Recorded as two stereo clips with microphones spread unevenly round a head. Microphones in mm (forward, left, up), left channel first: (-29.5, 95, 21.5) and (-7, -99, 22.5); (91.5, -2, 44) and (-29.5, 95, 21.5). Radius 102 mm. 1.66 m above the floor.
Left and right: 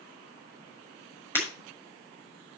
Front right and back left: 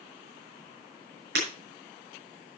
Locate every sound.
1.4 s breaking glass: 175° left, 6 m